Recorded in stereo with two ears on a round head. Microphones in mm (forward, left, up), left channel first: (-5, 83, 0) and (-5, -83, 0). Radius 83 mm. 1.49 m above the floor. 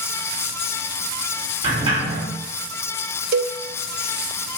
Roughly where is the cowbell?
Right.